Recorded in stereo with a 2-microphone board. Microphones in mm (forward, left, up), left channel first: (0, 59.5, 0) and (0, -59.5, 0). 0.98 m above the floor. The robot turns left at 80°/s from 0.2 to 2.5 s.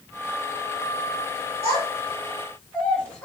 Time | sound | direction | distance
1.6 | a child speaking | 55° right (ahead or behind) | 2 m